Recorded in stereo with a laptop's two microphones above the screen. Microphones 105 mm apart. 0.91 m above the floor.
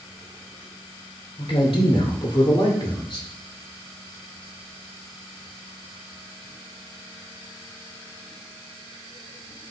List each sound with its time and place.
1.4 s a man speaking: 60° left (ahead or behind), 3.5 m; by 3.3 s 50° left (ahead or behind), 2.5 m